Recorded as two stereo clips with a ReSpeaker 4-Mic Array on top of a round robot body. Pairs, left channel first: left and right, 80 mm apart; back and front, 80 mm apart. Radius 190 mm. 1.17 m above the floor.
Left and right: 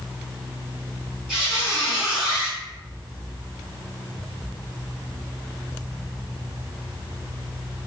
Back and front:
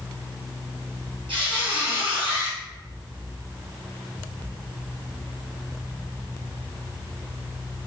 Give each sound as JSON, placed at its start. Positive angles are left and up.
{"t": 1.3, "sound": "a squeak", "azimuth_deg": -10, "distance_m": 1.6}